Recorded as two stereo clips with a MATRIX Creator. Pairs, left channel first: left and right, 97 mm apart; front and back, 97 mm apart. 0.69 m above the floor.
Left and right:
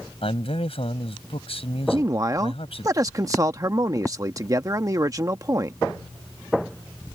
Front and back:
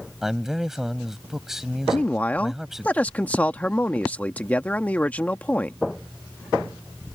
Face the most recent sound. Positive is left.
turn(degrees=-65)